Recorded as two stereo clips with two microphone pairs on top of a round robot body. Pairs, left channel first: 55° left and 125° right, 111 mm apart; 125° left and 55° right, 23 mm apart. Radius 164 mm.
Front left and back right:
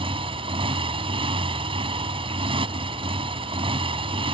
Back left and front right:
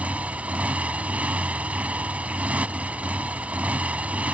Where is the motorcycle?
80° right.